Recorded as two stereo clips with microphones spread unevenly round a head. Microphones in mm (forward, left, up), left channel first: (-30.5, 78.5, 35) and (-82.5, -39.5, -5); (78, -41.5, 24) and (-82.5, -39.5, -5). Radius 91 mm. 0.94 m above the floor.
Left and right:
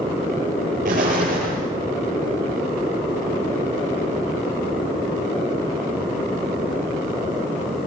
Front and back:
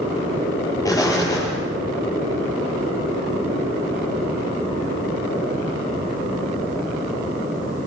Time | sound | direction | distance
0.8 | an explosion | 70° right | 9 m